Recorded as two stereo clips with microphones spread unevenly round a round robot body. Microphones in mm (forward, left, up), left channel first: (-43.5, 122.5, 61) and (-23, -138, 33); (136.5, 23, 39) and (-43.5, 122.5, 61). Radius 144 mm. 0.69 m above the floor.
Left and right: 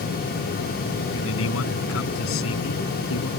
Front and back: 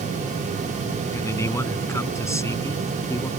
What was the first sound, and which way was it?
A man speaking, 50° left.